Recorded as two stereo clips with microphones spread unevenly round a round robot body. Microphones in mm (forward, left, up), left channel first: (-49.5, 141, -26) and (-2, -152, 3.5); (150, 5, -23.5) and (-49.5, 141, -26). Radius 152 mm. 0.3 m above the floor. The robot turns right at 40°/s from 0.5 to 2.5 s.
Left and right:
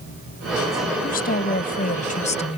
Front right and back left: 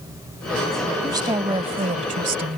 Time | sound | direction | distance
1.0 | a woman speaking | 85° left | ?